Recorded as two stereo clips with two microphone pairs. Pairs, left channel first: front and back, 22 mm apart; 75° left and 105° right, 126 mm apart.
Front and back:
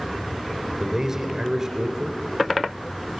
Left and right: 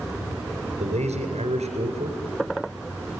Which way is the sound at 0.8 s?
115° right.